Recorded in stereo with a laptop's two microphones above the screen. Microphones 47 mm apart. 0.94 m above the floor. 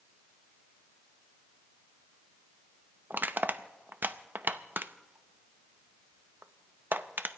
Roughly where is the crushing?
Right.